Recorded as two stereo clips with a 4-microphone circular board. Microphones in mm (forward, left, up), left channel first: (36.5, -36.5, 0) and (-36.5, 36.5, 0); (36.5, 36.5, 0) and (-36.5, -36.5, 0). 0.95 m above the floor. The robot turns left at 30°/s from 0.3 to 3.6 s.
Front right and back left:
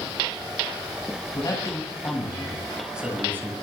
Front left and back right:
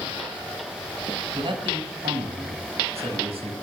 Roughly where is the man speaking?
Right.